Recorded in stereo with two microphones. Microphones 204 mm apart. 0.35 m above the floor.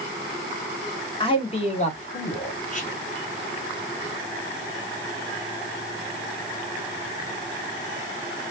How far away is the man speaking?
About 1.2 m.